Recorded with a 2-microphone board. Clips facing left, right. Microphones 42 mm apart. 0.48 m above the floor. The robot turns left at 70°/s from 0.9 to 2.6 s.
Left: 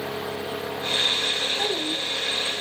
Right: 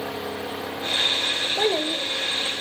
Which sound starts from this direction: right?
A child speaking, at 1.6 s.